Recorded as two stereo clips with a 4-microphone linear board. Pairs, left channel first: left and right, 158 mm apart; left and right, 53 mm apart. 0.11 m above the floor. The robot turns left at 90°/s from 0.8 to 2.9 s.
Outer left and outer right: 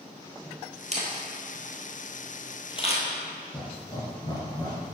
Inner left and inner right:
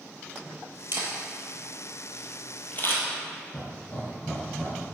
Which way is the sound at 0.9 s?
45° right (ahead or behind).